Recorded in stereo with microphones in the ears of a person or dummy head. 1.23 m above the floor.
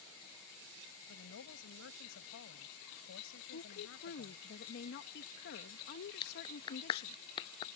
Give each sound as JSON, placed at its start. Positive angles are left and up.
{"t": 1.1, "sound": "a woman speaking", "side_deg": 85}
{"t": 3.5, "sound": "a woman speaking", "side_deg": 55}
{"t": 6.2, "sound": "a clap", "side_deg": 25}